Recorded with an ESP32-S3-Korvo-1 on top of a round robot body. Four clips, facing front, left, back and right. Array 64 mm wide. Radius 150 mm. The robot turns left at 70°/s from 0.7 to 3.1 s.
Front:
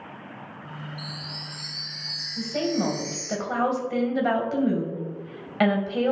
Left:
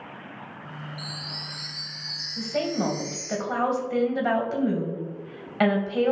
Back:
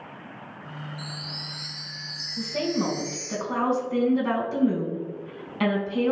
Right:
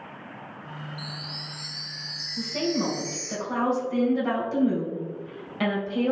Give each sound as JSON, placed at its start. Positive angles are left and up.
{"t": 1.0, "sound": "a chime", "azimuth_deg": 110, "distance_m": 1.1}
{"t": 2.4, "sound": "a woman speaking", "azimuth_deg": 80, "distance_m": 2.5}